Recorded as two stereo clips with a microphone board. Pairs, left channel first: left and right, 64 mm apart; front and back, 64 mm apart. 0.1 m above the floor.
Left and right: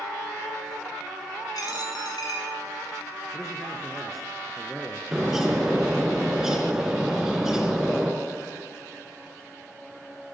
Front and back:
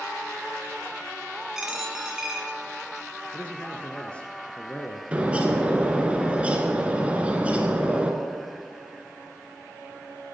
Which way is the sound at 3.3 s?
10° left.